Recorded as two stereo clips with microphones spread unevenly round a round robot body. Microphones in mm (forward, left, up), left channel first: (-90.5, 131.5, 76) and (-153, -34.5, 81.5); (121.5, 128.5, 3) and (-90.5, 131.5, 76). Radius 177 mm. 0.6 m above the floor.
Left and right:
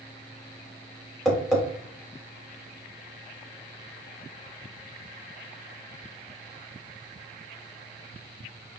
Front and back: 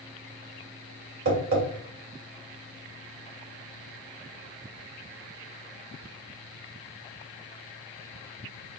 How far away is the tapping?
About 2.5 m.